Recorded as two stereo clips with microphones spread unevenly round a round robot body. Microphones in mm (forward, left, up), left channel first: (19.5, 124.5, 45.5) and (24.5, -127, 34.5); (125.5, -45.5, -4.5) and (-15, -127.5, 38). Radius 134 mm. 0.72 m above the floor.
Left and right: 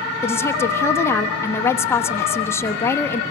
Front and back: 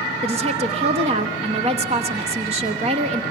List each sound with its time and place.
0.2 s a woman speaking: 165° left, 1.1 m